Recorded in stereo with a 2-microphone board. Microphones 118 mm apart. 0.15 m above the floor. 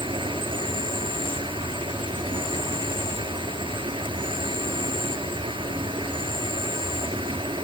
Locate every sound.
0.0 s an insect: 45° right (ahead or behind), 1.0 m